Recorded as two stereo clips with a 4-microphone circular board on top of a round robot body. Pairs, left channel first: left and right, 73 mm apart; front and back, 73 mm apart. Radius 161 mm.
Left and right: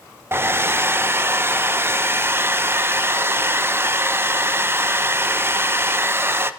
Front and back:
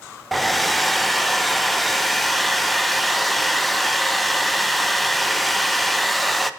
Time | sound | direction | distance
0.3 | a hair dryer | 90° right | 0.6 m